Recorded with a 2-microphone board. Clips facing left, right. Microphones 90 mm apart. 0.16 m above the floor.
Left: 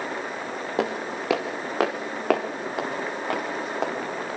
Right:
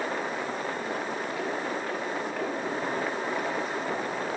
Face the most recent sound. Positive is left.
turn(degrees=65)  # may be behind; listen again after turning